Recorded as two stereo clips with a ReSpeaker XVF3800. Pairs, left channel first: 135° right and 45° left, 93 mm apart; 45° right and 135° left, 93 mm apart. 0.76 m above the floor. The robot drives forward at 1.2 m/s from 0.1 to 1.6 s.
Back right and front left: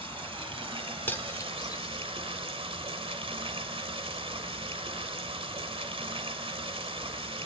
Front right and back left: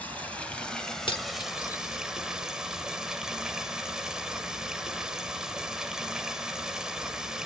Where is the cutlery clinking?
65° right, 1.4 m; by 2.0 s 90° right, 1.3 m.